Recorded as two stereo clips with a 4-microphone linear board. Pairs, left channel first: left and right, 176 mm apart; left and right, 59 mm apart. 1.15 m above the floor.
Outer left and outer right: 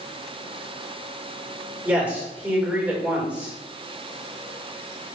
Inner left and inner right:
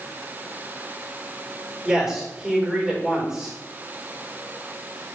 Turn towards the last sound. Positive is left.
turn(degrees=-10)  # may be behind; listen again after turning